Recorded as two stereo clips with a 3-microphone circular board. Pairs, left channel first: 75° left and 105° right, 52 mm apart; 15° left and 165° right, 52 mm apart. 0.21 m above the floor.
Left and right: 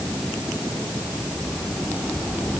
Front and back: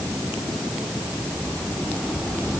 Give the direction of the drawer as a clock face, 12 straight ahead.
I don't hear a drawer.